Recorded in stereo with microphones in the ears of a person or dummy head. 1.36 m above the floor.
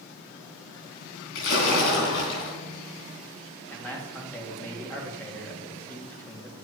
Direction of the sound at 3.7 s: 10° left (ahead or behind).